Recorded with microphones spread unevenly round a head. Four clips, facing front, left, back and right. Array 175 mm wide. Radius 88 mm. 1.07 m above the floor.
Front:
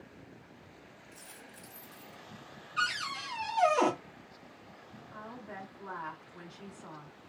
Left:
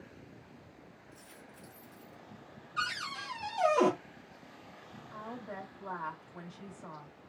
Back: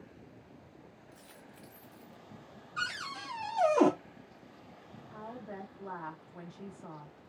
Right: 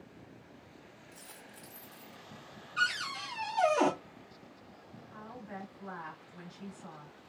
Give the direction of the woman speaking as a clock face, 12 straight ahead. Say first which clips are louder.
Left 3 dB, back 1 dB; 8 o'clock.